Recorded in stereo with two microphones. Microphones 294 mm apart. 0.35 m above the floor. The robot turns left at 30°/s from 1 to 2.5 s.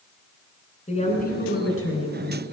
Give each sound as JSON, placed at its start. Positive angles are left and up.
{"t": 0.9, "sound": "a woman speaking", "azimuth_deg": 155, "distance_m": 3.5}